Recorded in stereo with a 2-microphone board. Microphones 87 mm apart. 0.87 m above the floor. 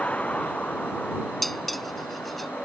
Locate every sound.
0.0 s a vehicle: 15° left (ahead or behind)
1.4 s dishes clattering: 5° left (ahead or behind)